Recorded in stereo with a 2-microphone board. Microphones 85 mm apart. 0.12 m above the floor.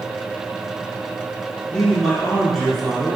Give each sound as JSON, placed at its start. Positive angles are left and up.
{"t": 1.7, "sound": "a man speaking", "side_deg": 5, "distance_m": 1.9}